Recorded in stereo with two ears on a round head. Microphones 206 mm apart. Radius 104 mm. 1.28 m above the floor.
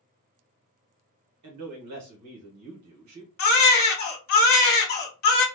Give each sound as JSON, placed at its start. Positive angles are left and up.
{"t": 1.4, "sound": "a man speaking", "side_deg": -85, "distance_m": 1.0}
{"t": 3.4, "sound": "a baby crying", "side_deg": 40, "distance_m": 1.1}